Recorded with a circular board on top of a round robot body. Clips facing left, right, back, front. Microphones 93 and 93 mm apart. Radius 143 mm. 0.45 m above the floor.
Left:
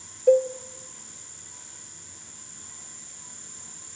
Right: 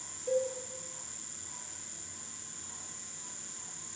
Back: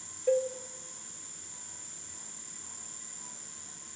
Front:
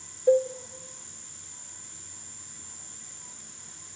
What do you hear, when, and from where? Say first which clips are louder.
0.3 s a cowbell: left 13 dB, front 6 dB; 65° left, 1.2 m